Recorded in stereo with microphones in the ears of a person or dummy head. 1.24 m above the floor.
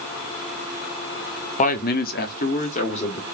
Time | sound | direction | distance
1.6 | a man speaking | 30° left (ahead or behind) | 0.6 m